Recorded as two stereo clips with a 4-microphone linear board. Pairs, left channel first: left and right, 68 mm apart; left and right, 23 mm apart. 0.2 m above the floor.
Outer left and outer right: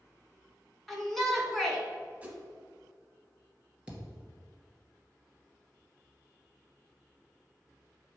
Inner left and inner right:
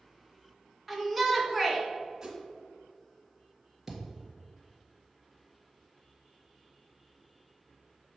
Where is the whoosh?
20° right (ahead or behind), 1.7 m.